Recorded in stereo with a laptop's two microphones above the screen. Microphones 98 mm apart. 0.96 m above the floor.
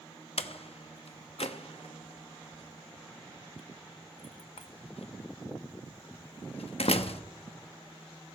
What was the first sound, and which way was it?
A door slam, 80° left.